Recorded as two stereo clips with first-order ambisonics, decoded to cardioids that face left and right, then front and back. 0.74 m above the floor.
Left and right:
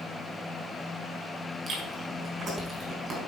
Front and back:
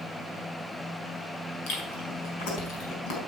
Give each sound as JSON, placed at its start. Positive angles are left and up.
{"t": 1.7, "sound": "chewing", "azimuth_deg": -25, "distance_m": 4.5}